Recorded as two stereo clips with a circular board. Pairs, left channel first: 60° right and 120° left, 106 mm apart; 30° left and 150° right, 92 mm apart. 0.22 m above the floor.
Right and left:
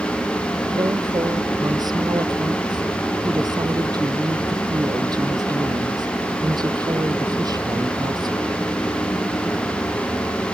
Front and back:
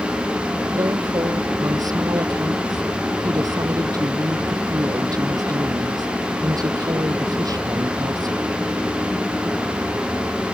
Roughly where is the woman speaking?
Behind.